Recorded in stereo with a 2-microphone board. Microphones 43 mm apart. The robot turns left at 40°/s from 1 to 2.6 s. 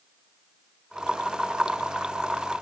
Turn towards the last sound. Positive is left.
No sound to turn to.